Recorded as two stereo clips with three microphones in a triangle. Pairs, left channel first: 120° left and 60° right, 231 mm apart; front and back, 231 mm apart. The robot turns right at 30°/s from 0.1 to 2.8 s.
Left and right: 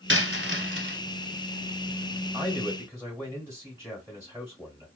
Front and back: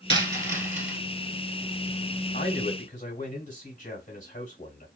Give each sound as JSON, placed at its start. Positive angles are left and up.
{"t": 0.1, "sound": "a dropped coin", "azimuth_deg": -60, "distance_m": 0.9}
{"t": 2.3, "sound": "a man speaking", "azimuth_deg": -5, "distance_m": 1.1}